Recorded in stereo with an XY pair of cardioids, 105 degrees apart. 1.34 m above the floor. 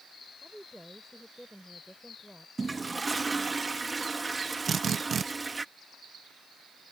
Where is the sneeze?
No sneeze in this recording.